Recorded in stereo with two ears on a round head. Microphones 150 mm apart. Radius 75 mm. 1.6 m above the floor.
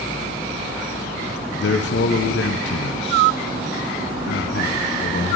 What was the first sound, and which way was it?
A man speaking, 70° left (ahead or behind).